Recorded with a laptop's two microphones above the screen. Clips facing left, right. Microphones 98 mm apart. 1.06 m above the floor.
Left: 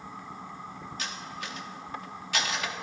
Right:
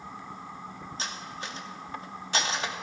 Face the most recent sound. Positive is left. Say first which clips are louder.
# right 1 dB
turn(degrees=-30)  # may be behind; listen again after turning